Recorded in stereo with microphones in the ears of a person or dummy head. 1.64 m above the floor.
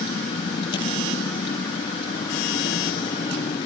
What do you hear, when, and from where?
0.0 s a vehicle: 30° left (ahead or behind)